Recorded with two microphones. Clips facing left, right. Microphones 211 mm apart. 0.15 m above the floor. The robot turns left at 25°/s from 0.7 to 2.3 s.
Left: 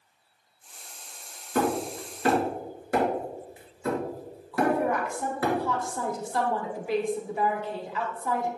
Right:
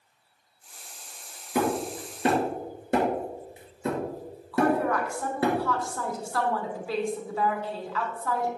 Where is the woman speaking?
20° left (ahead or behind), 1.2 m.